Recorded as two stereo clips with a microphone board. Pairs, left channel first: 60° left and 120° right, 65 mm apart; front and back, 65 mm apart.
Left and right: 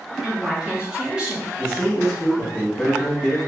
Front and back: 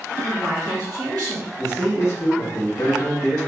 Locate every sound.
0.2 s a woman speaking: 165° left, 1.8 m; by 1.5 s 170° left, 1.2 m
1.6 s a man speaking: 25° left, 1.1 m